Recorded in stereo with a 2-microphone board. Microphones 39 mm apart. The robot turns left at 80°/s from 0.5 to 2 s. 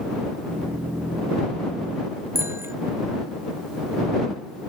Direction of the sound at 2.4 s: 75° right (ahead or behind).